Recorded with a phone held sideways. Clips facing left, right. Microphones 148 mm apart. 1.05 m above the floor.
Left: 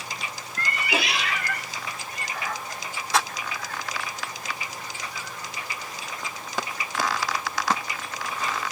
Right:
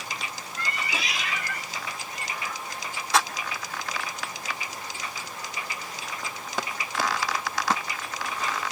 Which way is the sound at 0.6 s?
55° left (ahead or behind).